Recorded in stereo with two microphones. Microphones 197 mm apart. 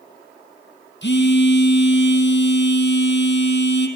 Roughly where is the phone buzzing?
Left.